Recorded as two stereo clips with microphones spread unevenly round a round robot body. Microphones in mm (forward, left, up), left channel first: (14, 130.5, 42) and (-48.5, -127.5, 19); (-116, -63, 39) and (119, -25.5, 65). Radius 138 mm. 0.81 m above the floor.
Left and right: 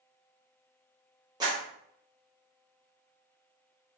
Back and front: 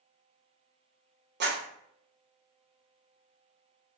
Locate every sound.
1.4 s a clap: 35° right, 1.0 m